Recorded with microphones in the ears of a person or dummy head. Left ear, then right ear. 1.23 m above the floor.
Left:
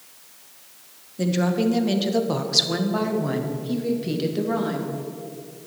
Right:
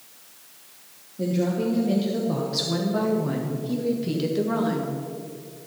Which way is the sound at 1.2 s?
60° left (ahead or behind).